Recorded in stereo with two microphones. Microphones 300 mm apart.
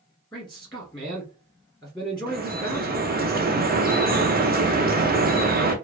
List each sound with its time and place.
0.3 s a man speaking: 15° left (ahead or behind), 1.6 m
2.3 s dripping: 30° right (ahead or behind), 0.6 m